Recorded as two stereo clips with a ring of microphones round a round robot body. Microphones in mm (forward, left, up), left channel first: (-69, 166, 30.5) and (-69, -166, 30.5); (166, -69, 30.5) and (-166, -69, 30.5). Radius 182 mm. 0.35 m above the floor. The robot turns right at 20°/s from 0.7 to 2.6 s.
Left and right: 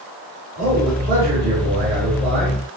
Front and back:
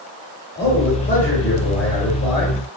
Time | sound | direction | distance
0.6 | a man speaking | 40° right | 1.7 m